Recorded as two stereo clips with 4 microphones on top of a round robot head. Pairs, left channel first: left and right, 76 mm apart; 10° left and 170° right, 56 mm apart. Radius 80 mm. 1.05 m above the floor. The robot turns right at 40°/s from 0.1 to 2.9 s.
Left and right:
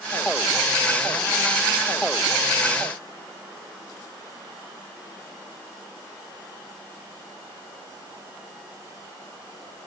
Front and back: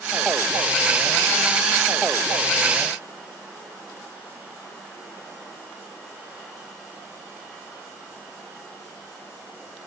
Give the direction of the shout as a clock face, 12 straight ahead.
No shout in this recording.